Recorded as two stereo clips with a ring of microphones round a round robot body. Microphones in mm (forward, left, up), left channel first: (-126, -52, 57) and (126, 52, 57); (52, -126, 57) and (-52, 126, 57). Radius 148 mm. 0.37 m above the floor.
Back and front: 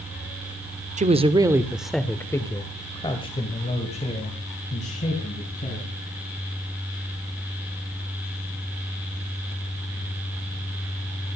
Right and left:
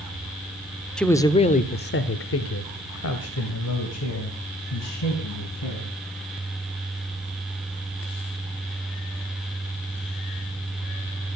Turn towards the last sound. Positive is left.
turn(degrees=-95)